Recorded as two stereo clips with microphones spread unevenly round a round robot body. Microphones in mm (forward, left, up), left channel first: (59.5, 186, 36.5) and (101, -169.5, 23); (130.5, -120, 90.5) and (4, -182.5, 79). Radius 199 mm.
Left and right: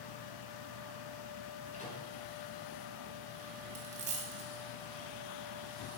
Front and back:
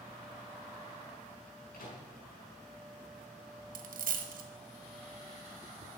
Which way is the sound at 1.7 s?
25° left.